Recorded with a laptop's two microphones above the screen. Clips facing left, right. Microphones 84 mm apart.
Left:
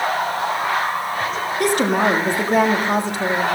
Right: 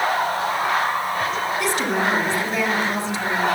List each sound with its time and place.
1.6 s a woman speaking: 55° left (ahead or behind), 1.9 m